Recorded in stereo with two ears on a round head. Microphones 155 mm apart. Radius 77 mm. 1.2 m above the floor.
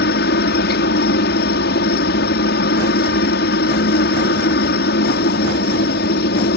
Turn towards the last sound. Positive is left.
turn(degrees=65)  # may be behind; listen again after turning